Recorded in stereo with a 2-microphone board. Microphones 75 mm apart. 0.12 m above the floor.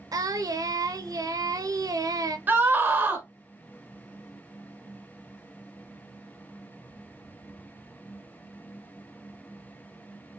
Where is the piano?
No piano in this recording.